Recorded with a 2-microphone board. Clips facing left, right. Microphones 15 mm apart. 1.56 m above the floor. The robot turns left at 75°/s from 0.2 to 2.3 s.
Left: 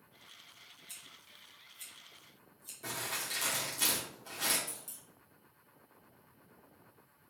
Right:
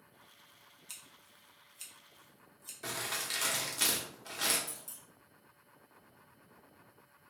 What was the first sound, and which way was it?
Scissors, 35° right (ahead or behind).